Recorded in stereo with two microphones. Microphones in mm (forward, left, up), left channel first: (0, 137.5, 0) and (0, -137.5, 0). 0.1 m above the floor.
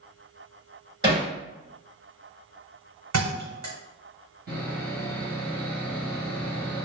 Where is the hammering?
20° right (ahead or behind), 1.5 m.